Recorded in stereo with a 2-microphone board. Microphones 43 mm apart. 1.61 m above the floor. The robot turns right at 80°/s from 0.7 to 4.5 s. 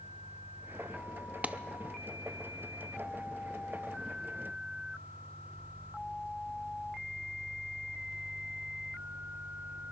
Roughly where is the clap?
Right.